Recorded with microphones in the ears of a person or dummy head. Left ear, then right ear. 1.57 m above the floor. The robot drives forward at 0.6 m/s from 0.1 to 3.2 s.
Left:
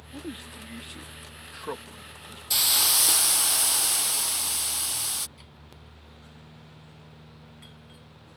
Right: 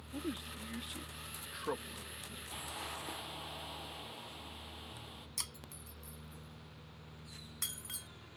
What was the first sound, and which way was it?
A man speaking, 10° left (ahead or behind).